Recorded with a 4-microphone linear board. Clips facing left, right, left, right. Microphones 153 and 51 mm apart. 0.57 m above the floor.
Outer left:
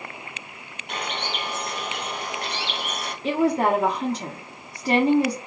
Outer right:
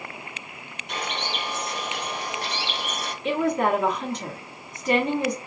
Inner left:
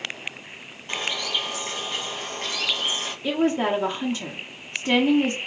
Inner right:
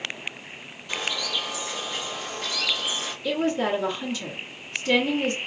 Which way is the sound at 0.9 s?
65° left (ahead or behind).